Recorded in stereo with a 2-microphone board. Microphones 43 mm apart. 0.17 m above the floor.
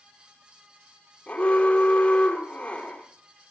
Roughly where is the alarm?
Left.